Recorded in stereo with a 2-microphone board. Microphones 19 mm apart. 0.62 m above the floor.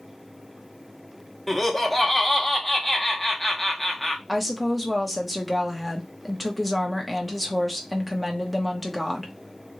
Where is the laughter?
5° left (ahead or behind), 0.9 m.